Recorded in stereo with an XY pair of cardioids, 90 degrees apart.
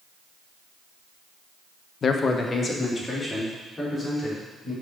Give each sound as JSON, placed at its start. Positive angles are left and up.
{"t": 2.0, "sound": "a man speaking", "azimuth_deg": 55, "distance_m": 0.8}